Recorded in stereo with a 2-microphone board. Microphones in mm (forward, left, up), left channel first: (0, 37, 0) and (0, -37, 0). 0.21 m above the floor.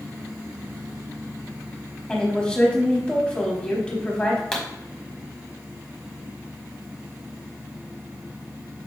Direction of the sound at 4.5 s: 10° left (ahead or behind).